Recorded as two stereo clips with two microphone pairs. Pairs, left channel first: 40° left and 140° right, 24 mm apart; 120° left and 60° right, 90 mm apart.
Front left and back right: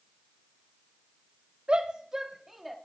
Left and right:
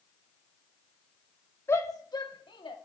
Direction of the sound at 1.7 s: Straight behind.